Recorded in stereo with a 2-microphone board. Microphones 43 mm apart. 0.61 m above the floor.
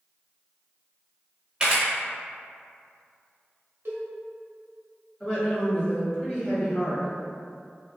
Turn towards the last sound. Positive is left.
turn(degrees=10)  # may be behind; listen again after turning